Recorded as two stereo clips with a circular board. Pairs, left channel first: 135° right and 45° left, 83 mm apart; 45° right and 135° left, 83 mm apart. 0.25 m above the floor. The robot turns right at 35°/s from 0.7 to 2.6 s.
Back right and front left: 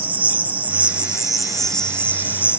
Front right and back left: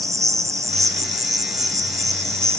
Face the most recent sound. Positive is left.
turn(degrees=175)